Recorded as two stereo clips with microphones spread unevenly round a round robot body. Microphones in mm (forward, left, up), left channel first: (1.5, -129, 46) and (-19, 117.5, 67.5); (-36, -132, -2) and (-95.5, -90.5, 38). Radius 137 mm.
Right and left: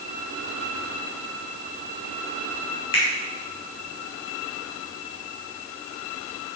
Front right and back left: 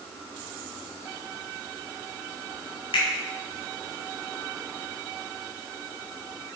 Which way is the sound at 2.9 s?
15° right.